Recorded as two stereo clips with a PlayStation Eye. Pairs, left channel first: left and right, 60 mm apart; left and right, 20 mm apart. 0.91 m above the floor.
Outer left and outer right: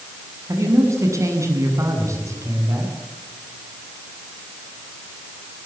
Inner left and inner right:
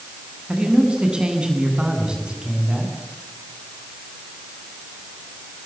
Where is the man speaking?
55° right (ahead or behind), 8 m.